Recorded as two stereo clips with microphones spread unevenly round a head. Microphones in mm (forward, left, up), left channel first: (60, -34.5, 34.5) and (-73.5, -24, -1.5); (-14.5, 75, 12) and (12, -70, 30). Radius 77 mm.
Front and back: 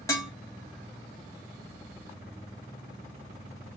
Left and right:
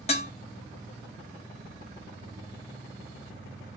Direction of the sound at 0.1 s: 50° left.